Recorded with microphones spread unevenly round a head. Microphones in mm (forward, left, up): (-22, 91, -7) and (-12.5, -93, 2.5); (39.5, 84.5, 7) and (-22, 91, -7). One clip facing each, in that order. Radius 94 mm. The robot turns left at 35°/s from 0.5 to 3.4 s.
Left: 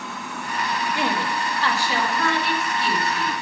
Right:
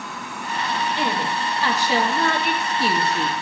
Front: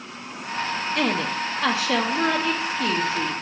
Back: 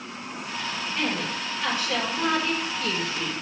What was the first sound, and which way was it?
A woman speaking, 15° left.